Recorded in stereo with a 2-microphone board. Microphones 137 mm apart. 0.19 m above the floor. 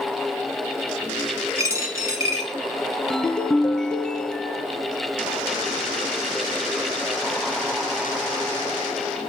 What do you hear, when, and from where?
1.6 s a dropped coin: 20° right (ahead or behind), 1.8 m
3.1 s a ringtone: 5° left (ahead or behind), 0.7 m